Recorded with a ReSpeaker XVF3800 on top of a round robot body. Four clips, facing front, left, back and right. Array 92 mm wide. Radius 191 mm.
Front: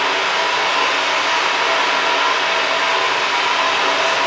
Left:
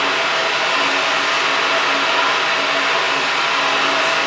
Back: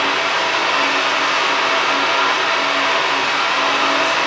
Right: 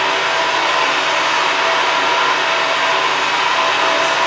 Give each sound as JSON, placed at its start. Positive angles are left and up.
{"t": 0.0, "sound": "running water", "azimuth_deg": -90, "distance_m": 3.0}